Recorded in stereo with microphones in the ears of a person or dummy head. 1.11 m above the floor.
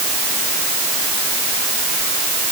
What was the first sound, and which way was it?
Only background noise.